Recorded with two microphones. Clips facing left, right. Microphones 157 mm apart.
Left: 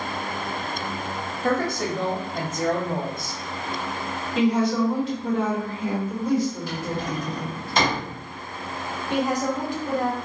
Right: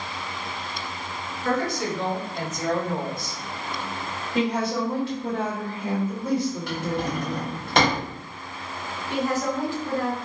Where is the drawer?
65° right (ahead or behind), 0.9 m.